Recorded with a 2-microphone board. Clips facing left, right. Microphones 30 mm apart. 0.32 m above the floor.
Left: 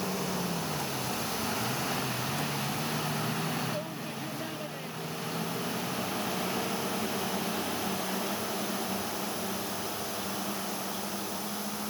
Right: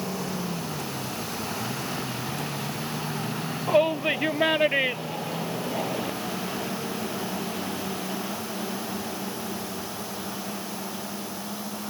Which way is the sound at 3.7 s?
60° right (ahead or behind).